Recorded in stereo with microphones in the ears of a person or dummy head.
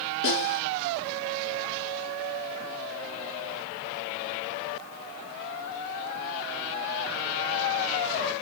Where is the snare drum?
65° left (ahead or behind), 6.5 m.